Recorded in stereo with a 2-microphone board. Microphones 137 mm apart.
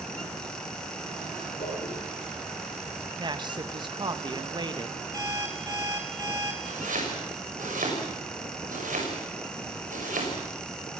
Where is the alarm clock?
25° right (ahead or behind), 3 m.